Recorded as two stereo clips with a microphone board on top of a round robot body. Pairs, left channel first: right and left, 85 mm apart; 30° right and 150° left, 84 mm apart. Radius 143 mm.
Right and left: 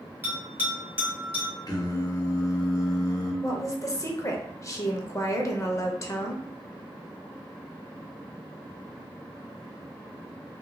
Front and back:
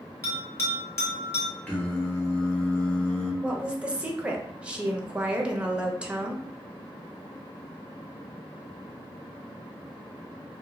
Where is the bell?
25° left, 1.5 m.